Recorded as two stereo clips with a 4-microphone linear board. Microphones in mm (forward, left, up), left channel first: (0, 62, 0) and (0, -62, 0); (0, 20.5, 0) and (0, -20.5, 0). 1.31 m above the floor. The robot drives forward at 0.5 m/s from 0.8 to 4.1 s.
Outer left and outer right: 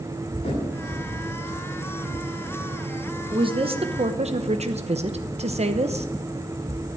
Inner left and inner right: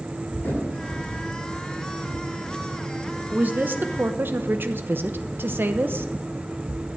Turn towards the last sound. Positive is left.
turn(degrees=-60)  # may be behind; listen again after turning